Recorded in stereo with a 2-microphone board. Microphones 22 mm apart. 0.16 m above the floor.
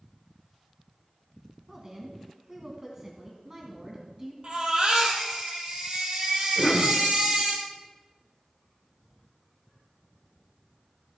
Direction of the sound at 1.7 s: 20° right (ahead or behind).